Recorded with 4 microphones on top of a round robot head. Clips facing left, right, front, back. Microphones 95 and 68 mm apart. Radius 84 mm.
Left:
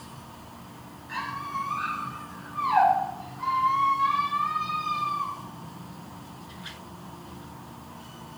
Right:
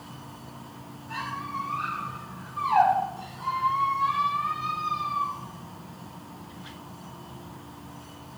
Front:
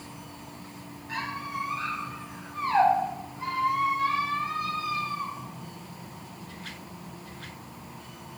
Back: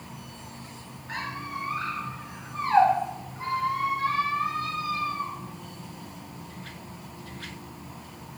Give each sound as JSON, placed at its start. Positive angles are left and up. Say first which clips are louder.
{"t": 1.1, "sound": "a squeak", "louder": "left 1 dB, front 1 dB", "azimuth_deg": 135, "distance_m": 3.0}